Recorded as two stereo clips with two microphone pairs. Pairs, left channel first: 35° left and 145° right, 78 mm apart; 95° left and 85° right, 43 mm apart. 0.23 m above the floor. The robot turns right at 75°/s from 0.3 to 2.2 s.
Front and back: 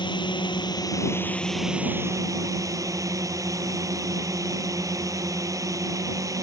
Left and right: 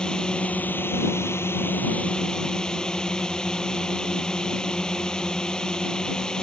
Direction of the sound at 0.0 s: 25° left.